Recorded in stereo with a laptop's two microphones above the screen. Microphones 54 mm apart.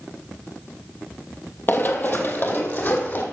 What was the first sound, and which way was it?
Running footsteps, 40° left (ahead or behind).